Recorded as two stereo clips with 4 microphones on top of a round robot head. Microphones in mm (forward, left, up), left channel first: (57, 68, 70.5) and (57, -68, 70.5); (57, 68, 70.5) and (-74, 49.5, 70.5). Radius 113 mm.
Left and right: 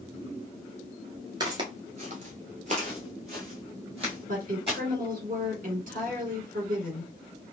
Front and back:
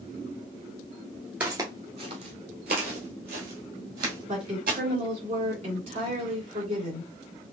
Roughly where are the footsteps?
Right.